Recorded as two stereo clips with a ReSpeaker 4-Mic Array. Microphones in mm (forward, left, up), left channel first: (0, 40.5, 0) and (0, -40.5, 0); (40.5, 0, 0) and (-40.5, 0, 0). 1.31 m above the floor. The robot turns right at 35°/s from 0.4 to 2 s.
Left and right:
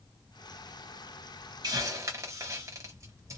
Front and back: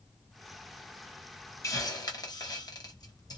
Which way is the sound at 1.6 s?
50° right.